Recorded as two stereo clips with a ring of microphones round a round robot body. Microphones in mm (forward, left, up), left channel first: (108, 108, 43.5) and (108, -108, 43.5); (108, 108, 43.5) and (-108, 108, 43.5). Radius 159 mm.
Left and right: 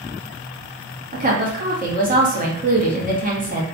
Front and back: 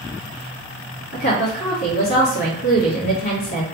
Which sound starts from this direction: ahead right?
A woman speaking, at 1.1 s.